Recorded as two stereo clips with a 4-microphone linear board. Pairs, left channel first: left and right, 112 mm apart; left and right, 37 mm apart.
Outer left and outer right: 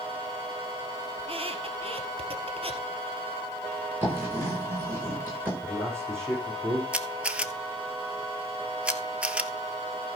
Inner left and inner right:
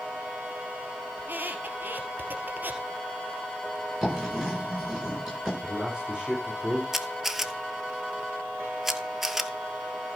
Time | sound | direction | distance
1.2 | a squeak | 60° right (ahead or behind) | 1.7 m
4.0 | writing | 20° right (ahead or behind) | 9 m
5.6 | a man speaking | 25° right (ahead or behind) | 5.5 m
6.9 | a camera shutter | 10° right (ahead or behind) | 0.8 m